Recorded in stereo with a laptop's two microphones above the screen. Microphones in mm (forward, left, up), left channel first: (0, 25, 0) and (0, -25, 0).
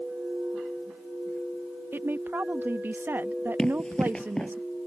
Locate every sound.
1.9 s a woman speaking: 45° right (ahead or behind)
3.6 s running footsteps: 15° left (ahead or behind)